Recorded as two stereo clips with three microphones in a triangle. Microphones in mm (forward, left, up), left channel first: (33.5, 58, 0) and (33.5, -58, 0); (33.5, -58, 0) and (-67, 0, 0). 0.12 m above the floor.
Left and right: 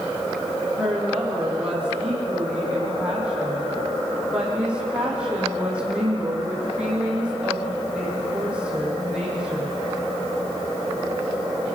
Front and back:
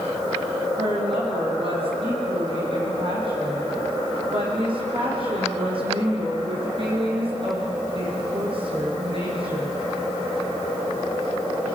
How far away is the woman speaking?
About 5.5 m.